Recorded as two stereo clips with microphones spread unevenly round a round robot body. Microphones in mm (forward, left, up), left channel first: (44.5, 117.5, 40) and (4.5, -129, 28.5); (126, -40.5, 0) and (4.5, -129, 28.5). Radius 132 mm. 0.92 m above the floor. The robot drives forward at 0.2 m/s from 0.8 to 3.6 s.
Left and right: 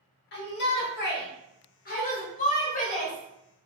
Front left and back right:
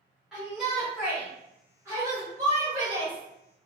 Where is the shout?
120° left, 0.9 m; by 3.6 s 145° left, 1.3 m.